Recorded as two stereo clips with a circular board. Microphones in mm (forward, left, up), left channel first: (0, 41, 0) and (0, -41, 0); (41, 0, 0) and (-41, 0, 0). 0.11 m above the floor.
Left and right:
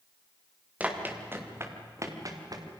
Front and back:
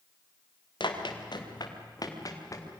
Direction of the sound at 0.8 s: 15° right.